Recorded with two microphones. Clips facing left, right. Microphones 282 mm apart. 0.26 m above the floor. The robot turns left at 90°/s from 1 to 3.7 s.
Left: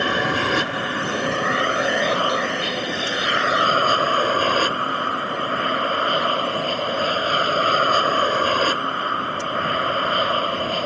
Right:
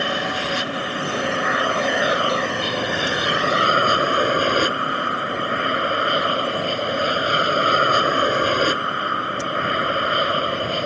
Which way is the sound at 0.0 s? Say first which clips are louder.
Left 3 dB; 85° left.